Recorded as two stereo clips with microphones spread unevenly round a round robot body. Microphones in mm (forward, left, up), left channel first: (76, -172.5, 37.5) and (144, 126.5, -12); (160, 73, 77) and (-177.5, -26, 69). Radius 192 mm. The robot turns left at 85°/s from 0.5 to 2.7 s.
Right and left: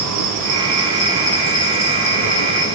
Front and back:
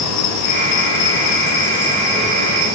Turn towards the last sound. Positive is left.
turn(degrees=-130)